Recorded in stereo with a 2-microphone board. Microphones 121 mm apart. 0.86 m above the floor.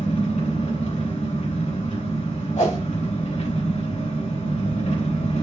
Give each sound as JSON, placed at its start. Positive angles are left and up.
{"t": 0.0, "sound": "an engine running", "side_deg": 80, "distance_m": 4.5}
{"t": 2.6, "sound": "a whoosh", "side_deg": 75, "distance_m": 3.5}